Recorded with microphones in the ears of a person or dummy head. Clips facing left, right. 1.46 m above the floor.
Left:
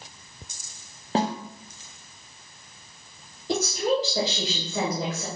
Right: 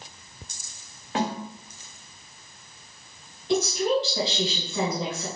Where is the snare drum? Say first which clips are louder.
Left 2 dB; 30° left (ahead or behind), 0.6 m.